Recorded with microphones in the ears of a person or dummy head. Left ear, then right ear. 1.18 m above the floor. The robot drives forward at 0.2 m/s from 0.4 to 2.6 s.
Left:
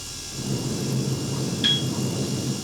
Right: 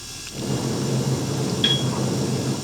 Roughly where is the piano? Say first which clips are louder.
Right 1 dB; centre.